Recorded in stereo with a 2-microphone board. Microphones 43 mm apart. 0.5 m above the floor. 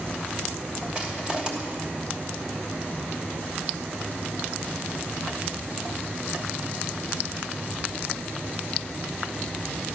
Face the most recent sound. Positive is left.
turn(degrees=-20)  # may be behind; listen again after turning